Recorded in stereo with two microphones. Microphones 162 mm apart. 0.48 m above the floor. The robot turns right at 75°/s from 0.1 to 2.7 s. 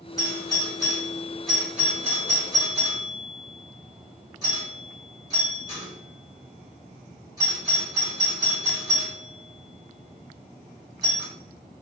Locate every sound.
0.2 s a doorbell: 25° left (ahead or behind), 1.8 m; by 11.3 s 25° right (ahead or behind), 1.8 m